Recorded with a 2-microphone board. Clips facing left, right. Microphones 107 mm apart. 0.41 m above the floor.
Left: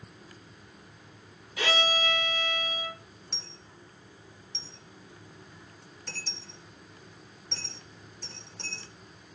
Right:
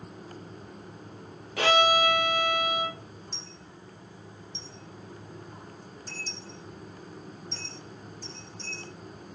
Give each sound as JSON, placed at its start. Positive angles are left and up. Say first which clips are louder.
{"t": 1.6, "sound": "a violin", "louder": "right 7 dB", "side_deg": -60, "distance_m": 1.4}
{"t": 3.3, "sound": "a dropped coin", "louder": "right 3 dB", "side_deg": 75, "distance_m": 1.9}